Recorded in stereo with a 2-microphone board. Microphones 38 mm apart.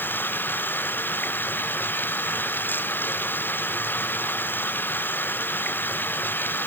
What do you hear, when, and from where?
0.0 s running water: 60° left (ahead or behind)